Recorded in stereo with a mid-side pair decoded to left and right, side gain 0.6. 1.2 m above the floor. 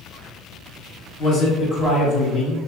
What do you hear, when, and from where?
1.2 s a man speaking: 50° left, 1.6 m